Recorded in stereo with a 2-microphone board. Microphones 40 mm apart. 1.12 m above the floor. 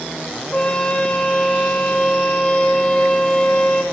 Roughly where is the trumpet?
Left.